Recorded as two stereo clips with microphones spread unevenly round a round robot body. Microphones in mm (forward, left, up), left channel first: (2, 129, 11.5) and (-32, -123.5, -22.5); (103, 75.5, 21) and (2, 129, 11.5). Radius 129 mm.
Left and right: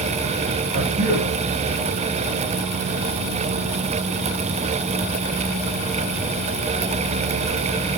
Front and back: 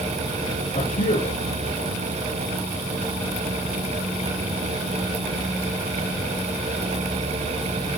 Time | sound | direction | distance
0.7 | a man speaking | 30° right | 8 m